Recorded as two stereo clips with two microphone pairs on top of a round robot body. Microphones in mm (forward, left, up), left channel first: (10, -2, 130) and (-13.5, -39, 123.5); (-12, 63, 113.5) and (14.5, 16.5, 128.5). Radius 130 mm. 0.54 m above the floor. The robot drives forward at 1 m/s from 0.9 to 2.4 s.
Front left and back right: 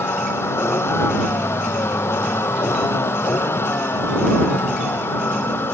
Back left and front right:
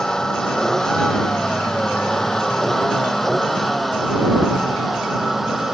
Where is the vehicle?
40° left; by 5.8 s 25° left.